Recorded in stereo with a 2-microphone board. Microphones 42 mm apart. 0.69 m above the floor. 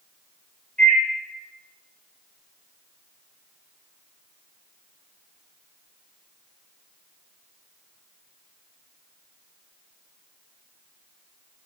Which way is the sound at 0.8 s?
25° left (ahead or behind).